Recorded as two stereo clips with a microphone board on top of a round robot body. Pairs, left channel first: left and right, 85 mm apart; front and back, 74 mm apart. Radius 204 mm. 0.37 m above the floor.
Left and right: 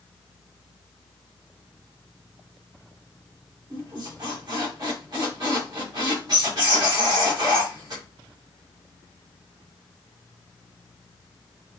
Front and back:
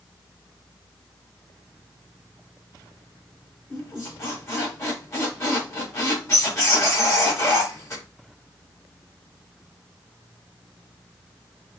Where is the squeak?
50° right, 3.5 m.